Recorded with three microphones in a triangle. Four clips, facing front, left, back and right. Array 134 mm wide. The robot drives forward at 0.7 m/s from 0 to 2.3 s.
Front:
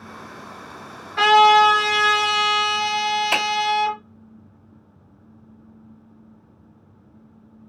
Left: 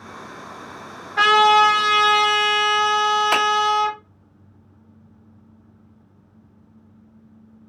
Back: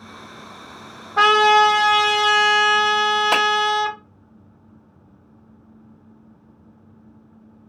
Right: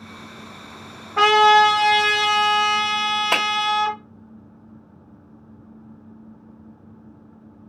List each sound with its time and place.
1.2 s a trumpet: 145° right, 1.1 m; by 4.0 s 160° right, 1.8 m
3.3 s a finger snap: 150° right, 2.5 m